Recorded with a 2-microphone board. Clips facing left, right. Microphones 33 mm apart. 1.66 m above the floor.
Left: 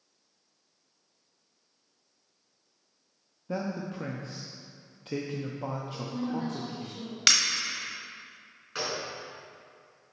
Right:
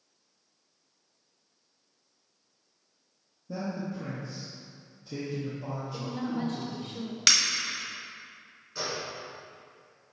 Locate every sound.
3.5 s a man speaking: 60° left (ahead or behind), 0.6 m
5.9 s a woman speaking: 65° right (ahead or behind), 1.3 m
7.3 s breaking glass: 10° left (ahead or behind), 1.1 m
8.8 s a gunshot: 75° left (ahead or behind), 2 m